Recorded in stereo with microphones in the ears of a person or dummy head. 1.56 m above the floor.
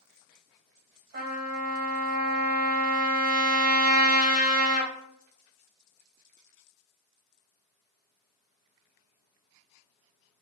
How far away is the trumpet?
About 0.9 m.